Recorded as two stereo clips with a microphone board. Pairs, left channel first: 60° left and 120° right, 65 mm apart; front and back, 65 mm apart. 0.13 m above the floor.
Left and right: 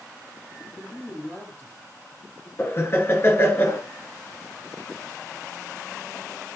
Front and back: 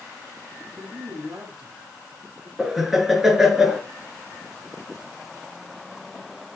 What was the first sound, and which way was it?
A woman speaking, 120° left.